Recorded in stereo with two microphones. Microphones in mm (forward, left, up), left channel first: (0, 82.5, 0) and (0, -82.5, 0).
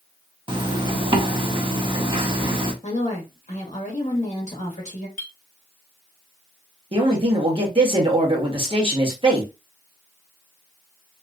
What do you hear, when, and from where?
0.5 s a zipper: 30° right (ahead or behind), 0.8 m
2.8 s a woman speaking: 45° left (ahead or behind), 1.6 m
5.2 s a clink: 60° left (ahead or behind), 0.8 m
6.9 s a man speaking: 30° right (ahead or behind), 1.4 m